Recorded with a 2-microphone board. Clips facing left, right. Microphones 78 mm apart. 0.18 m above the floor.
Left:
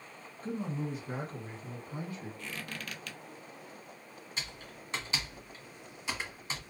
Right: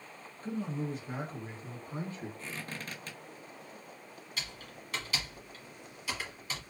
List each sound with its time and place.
0.4 s a man speaking: 25° left (ahead or behind), 1.2 m; by 2.3 s 40° right (ahead or behind), 1.5 m
2.4 s a squeak: 30° right (ahead or behind), 0.6 m
4.4 s typing on a keyboard: 25° left (ahead or behind), 1.1 m